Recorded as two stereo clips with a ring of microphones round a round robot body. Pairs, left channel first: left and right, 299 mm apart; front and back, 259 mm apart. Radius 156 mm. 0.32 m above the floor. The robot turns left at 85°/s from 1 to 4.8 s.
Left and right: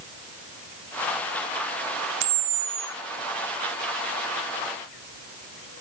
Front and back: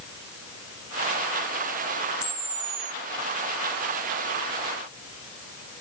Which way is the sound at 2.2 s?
105° right.